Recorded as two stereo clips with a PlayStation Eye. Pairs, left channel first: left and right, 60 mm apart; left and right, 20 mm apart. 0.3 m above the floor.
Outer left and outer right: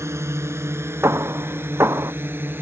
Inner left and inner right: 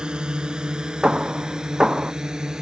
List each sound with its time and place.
0.0 s a drone: 50° right (ahead or behind); by 2.6 s 35° right (ahead or behind)
1.0 s hammering: 45° right (ahead or behind)